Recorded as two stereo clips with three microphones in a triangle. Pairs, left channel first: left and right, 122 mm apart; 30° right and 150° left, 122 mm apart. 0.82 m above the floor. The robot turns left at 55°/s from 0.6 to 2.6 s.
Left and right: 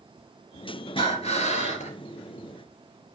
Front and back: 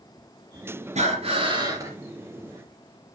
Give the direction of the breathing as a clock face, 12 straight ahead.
8 o'clock.